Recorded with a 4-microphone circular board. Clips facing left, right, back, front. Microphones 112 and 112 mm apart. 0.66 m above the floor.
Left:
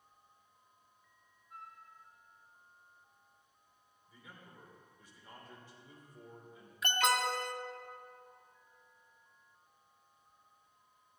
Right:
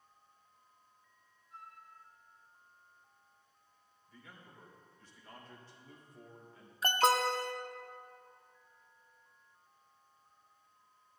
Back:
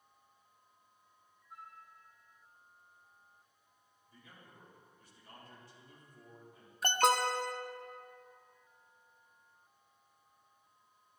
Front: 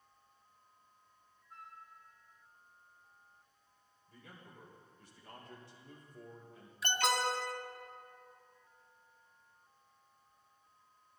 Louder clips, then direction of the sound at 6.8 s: Right 3 dB, back 4 dB; 140° right.